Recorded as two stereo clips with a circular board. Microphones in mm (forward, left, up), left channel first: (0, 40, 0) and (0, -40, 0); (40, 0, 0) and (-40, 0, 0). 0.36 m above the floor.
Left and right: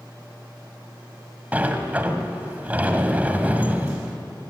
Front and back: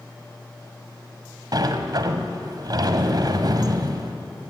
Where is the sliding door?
160° right, 1.6 m.